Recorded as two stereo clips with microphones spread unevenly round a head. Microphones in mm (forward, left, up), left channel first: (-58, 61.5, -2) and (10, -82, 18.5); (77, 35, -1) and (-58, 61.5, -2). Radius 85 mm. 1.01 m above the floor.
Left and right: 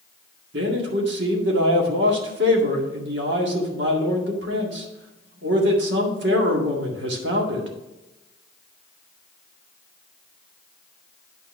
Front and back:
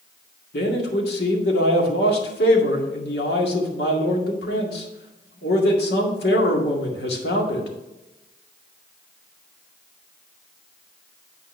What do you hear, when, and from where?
0.5 s a man speaking: 35° right, 2 m